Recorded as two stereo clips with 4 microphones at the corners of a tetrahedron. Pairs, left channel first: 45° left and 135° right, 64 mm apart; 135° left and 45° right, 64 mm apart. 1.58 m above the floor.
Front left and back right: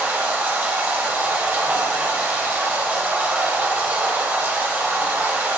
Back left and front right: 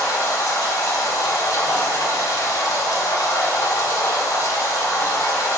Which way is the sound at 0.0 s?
160° left.